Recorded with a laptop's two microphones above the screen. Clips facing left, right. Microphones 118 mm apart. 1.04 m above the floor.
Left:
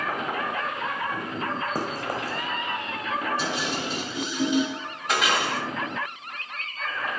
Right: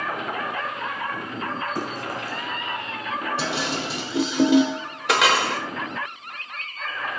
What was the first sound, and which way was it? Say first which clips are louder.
Running footsteps: even; 40° left (ahead or behind).